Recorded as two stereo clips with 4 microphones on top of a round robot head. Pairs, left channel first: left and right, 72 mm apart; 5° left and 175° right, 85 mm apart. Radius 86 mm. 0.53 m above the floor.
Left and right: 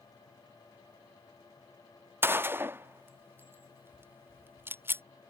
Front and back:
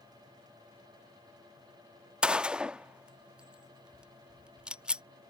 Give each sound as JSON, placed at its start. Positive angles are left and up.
{"t": 2.2, "sound": "a gunshot", "azimuth_deg": -105}